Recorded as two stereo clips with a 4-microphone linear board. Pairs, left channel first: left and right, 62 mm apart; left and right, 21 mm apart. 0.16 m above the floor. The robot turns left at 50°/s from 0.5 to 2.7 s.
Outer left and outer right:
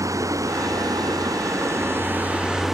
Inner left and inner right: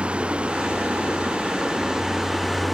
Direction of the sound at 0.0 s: 65° right.